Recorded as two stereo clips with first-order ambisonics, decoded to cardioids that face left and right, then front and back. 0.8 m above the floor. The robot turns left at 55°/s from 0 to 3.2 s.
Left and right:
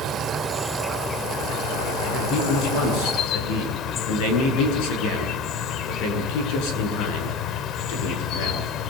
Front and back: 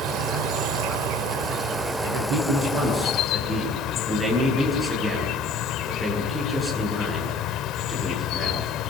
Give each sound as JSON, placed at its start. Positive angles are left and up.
{"t": 0.0, "sound": "an insect", "azimuth_deg": -140, "distance_m": 1.1}
{"t": 2.0, "sound": "a man speaking", "azimuth_deg": 155, "distance_m": 9.0}